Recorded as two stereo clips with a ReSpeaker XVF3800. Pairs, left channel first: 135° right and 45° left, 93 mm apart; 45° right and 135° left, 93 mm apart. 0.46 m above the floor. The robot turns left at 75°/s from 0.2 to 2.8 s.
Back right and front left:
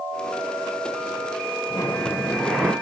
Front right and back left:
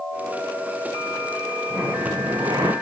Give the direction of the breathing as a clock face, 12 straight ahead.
6 o'clock.